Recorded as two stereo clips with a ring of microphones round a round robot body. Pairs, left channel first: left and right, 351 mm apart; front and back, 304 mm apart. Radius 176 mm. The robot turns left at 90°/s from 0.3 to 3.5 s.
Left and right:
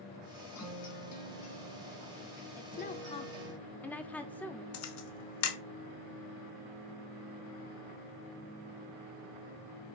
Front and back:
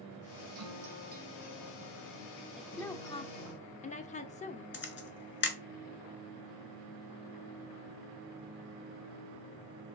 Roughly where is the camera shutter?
Ahead left.